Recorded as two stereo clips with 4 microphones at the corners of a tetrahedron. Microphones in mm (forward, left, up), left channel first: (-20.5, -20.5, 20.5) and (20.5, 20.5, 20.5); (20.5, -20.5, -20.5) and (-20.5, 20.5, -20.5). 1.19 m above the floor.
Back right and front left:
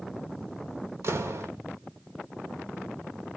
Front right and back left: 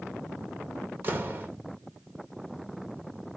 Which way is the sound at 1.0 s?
85° left.